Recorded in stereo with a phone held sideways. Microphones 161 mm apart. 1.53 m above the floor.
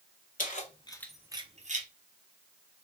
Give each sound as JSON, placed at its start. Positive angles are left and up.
{"t": 0.4, "sound": "keys jangling", "side_deg": 55, "distance_m": 1.0}